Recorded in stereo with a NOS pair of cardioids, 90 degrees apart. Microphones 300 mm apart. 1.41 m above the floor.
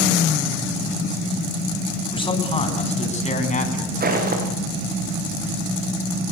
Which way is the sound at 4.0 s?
30° right.